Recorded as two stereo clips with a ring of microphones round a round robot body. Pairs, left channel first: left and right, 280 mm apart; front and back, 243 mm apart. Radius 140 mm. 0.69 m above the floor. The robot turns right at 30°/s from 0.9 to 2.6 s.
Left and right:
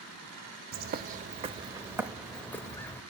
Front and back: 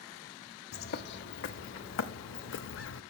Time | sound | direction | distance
0.7 | a bird | 40° right | 0.5 m